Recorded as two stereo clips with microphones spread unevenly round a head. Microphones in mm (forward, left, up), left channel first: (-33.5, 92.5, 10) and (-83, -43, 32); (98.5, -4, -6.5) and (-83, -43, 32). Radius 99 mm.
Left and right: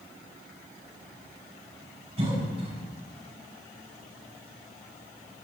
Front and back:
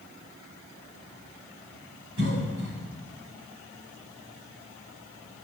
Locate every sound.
2.2 s a cough: 155° right, 7.5 m